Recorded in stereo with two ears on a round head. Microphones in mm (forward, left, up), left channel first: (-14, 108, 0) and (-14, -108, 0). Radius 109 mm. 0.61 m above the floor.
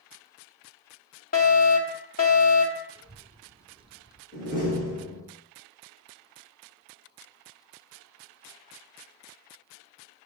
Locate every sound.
1.3 s a fire alarm: 35° left (ahead or behind), 2.5 m
3.0 s a child speaking: 20° right (ahead or behind), 0.9 m
4.3 s a door slam: 35° left (ahead or behind), 8 m